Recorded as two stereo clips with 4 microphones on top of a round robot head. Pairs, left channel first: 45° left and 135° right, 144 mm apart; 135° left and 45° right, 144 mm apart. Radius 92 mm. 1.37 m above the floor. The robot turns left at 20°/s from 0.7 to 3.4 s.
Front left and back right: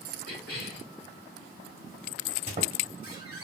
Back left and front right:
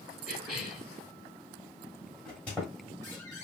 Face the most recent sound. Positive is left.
turn(degrees=-165)